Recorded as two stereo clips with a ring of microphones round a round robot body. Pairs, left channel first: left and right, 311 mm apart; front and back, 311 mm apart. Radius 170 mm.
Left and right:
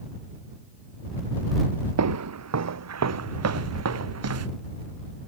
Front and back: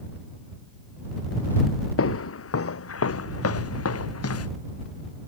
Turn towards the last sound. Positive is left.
turn(degrees=-45)